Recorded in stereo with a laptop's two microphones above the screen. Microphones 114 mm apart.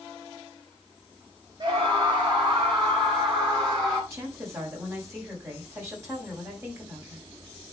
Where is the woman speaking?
20° right (ahead or behind), 6 m.